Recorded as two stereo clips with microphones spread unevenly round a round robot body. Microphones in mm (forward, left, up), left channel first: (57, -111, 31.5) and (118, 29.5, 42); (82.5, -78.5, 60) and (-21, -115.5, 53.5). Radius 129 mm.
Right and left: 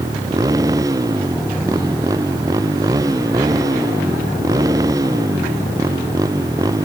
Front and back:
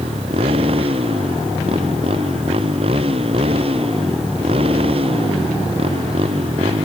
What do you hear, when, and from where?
0.0 s a motorcycle: 145° left